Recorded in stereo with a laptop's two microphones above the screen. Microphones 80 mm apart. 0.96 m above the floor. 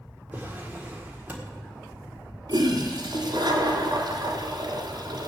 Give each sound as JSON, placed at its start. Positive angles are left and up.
{"t": 0.3, "sound": "a drawer", "side_deg": -20, "distance_m": 1.7}
{"t": 2.5, "sound": "a toilet flushing", "side_deg": -60, "distance_m": 2.0}